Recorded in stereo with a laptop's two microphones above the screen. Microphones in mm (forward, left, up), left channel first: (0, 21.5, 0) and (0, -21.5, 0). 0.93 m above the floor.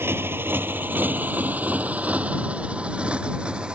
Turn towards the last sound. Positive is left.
turn(degrees=-20)  # may be behind; listen again after turning